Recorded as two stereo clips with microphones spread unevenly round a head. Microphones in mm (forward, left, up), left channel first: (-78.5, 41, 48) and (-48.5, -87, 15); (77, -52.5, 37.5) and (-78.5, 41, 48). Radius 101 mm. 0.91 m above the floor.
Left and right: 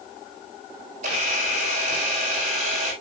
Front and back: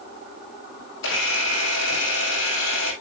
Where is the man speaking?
I don't hear a man speaking.